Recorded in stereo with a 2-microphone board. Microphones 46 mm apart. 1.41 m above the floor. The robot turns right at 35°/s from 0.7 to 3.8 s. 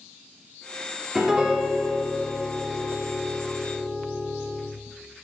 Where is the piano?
170° right, 1.5 m; by 4.7 s 75° right, 1.5 m.